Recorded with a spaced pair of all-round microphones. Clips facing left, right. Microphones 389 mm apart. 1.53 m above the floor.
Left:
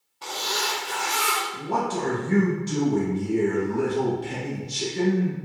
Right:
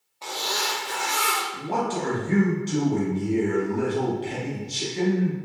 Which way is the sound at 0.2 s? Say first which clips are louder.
Even; 25° left (ahead or behind).